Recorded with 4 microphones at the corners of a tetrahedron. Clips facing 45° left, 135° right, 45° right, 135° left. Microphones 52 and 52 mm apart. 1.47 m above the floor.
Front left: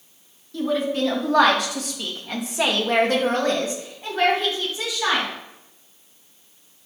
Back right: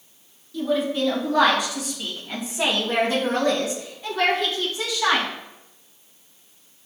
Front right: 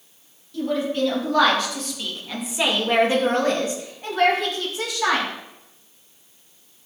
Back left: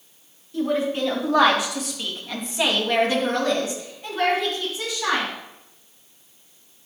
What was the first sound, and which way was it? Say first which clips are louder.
A woman speaking: even, even; 75° left.